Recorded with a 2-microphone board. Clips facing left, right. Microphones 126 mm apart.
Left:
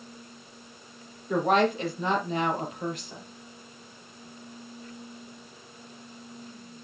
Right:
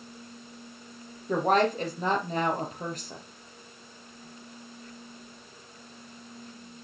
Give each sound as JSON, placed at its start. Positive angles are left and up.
{"t": 1.3, "sound": "a woman speaking", "side_deg": -40, "distance_m": 4.0}